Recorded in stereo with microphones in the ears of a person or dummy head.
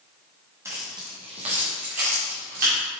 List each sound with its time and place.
0.7 s keys jangling: 15° right (ahead or behind), 1.2 m; by 2.7 s 50° right (ahead or behind), 2.5 m